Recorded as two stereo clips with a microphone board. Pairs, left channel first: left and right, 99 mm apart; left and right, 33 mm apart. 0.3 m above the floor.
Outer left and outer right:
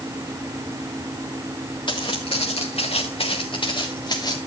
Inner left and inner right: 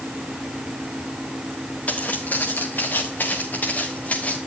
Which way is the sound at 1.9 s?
55° left (ahead or behind).